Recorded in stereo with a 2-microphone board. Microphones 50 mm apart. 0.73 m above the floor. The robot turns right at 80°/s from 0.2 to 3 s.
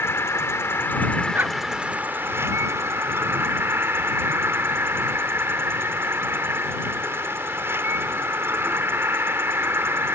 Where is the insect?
70° left; by 10.2 s 65° right.